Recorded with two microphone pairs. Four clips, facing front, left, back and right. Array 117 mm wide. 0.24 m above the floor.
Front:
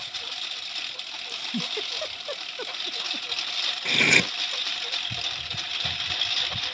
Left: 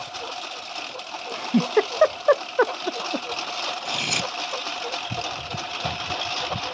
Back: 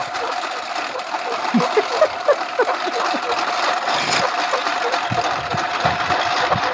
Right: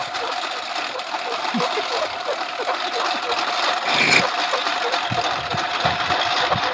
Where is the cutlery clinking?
65° right.